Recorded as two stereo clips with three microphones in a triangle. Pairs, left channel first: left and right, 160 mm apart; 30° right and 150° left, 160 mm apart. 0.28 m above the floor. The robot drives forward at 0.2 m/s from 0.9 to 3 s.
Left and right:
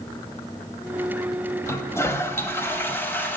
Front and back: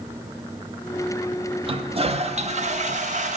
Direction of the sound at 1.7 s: 150° left.